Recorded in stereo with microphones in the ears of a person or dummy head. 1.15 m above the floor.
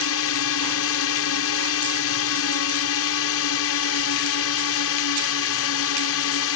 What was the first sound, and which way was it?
A drone, 65° left (ahead or behind).